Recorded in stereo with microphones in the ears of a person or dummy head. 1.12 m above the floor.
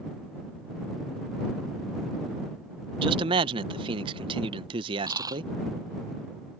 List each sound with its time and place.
3.0 s a man speaking: 25° right (ahead or behind)
5.1 s a dropped coin: 20° right (ahead or behind)